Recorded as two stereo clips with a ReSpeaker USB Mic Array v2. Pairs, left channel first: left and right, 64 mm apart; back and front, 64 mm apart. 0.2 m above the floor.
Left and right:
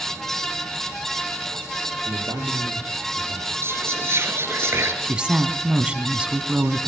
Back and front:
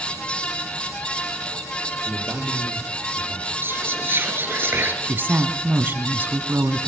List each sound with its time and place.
2.0 s a man speaking: 75° right, 5 m
3.6 s whispering: 45° right, 2.5 m
5.0 s a woman speaking: 25° right, 1.3 m